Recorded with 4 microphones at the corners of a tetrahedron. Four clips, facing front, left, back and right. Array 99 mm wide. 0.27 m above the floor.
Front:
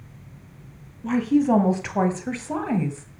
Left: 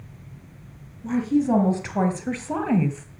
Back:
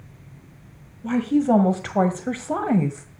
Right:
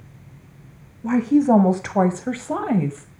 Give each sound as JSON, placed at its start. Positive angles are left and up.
{"t": 1.0, "sound": "a woman speaking", "azimuth_deg": -95, "distance_m": 1.9}